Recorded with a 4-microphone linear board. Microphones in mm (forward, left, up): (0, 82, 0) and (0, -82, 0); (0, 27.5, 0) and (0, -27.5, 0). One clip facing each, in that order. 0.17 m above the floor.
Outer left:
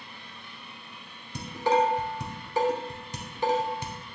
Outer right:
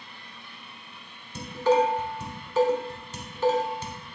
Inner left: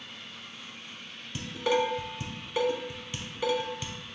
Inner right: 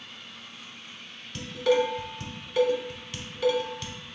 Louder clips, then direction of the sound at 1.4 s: Outer right 3 dB, inner right 3 dB; 15° left (ahead or behind).